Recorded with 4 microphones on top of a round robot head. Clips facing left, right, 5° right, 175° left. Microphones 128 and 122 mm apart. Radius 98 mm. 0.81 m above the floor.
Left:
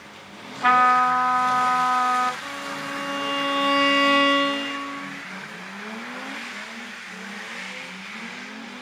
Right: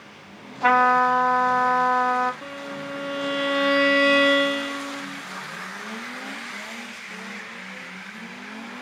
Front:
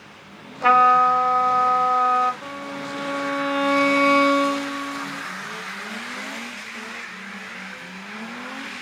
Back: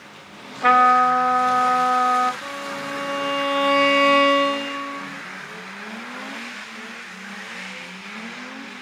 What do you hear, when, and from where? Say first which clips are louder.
0.6 s a trumpet: right 1 dB, even; 135° right, 2.5 m
2.4 s a violin: even, back 1 dB; 115° right, 2 m